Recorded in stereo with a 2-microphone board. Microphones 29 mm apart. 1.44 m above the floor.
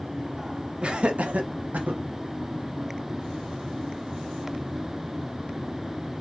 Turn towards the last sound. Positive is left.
turn(degrees=-75)  # may be behind; listen again after turning